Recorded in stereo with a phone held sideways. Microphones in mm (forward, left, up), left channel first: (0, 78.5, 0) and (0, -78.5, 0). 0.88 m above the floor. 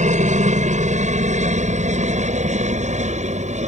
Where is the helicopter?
50° right (ahead or behind).